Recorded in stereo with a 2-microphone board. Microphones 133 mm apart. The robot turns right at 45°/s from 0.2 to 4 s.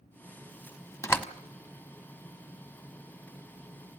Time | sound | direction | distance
1.0 | a door slam | 20° left (ahead or behind) | 1.0 m